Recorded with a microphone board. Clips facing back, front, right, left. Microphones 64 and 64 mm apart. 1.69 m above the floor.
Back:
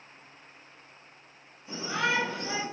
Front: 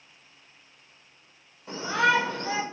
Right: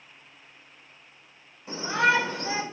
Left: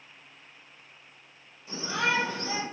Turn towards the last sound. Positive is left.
turn(degrees=-40)